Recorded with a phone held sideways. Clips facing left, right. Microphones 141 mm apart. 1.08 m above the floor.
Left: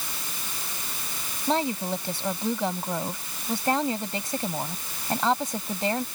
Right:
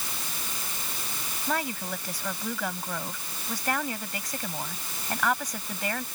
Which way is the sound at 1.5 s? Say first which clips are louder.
Left 6 dB; 25° left (ahead or behind).